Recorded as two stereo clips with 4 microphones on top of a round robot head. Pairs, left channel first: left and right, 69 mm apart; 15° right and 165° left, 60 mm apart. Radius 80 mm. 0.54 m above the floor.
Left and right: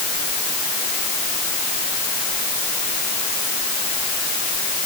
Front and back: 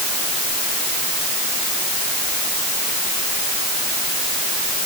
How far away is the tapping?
I don't hear tapping.